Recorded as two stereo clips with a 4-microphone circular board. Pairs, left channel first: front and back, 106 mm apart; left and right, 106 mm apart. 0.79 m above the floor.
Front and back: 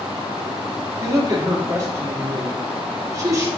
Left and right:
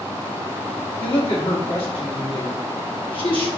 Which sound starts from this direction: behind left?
A woman speaking, at 1.0 s.